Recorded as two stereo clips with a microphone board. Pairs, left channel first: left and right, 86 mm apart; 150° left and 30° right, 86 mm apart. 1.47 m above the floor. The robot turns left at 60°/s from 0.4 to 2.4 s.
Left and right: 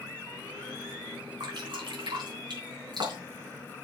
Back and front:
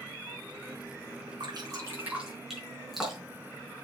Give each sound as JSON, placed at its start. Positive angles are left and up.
{"t": 1.4, "sound": "dripping", "azimuth_deg": -60, "distance_m": 4.0}